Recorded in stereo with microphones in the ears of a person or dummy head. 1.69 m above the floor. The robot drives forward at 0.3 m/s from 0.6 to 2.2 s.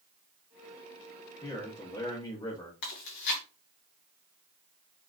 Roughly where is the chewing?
Left.